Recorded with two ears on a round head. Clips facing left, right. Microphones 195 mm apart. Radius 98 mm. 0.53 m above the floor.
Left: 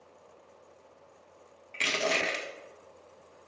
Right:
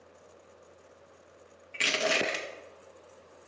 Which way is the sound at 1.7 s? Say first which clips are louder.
Right 1 dB; 10° right (ahead or behind).